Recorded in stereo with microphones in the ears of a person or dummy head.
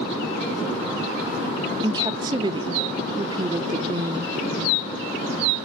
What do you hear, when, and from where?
1.8 s a woman speaking: 25° right (ahead or behind), 0.7 m